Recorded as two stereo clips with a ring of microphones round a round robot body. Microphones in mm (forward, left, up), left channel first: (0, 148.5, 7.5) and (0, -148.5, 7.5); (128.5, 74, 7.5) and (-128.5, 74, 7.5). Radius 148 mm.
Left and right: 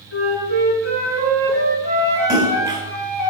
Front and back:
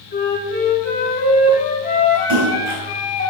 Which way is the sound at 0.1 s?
55° left.